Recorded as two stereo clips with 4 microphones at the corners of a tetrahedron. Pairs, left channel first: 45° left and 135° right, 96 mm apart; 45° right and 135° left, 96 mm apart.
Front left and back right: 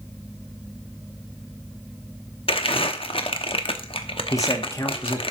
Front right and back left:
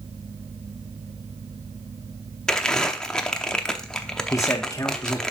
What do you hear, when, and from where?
2.5 s crumpling: 35° left, 0.8 m
4.3 s a man speaking: straight ahead, 1.5 m